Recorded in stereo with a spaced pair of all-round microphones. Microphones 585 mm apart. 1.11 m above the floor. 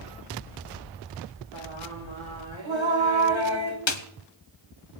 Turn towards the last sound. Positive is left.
turn(degrees=50)  # may be behind; listen again after turning